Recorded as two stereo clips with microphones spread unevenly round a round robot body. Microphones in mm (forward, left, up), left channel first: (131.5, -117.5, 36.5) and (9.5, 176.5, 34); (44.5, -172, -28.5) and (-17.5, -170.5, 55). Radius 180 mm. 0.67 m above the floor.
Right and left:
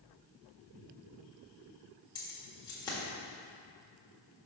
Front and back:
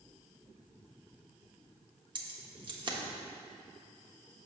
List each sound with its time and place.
2.1 s keys jangling: 145° right, 1.2 m